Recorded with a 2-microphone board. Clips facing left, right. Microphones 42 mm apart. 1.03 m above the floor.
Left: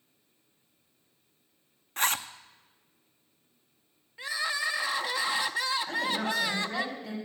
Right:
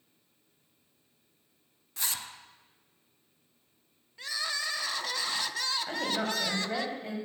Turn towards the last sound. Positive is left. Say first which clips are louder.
# left 2 dB
turn(degrees=-30)  # may be behind; listen again after turning